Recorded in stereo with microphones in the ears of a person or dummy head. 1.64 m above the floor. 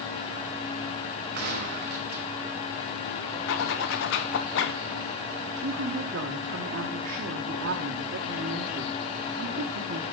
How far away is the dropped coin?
I don't hear a dropped coin.